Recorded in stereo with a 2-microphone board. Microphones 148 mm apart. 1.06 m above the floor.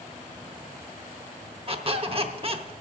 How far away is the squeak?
About 0.8 m.